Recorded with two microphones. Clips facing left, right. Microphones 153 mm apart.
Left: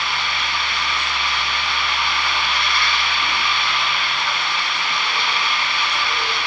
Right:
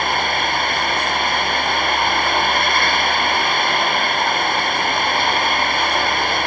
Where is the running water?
50° right (ahead or behind).